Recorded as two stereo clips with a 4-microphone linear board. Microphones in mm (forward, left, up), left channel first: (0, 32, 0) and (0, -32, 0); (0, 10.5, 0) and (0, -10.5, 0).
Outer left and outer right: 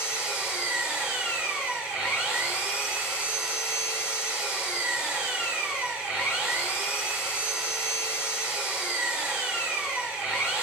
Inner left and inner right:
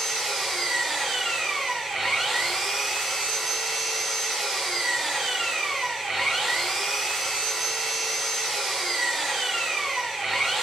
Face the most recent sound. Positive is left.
turn(degrees=-15)  # may be behind; listen again after turning